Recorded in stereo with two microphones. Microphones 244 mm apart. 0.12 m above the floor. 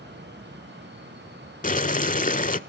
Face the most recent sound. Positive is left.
turn(degrees=35)  # may be behind; listen again after turning